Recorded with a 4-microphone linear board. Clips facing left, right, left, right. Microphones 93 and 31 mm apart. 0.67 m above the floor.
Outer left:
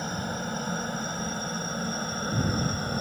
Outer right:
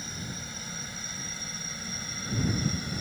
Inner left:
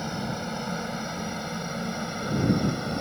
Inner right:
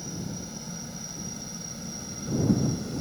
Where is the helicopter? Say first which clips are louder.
Outer left 9 dB, inner left 6 dB; 50° left (ahead or behind); by 3.0 s 45° left (ahead or behind).